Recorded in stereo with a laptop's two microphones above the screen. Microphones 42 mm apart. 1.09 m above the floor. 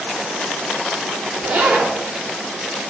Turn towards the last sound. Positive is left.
turn(degrees=-40)  # may be behind; listen again after turning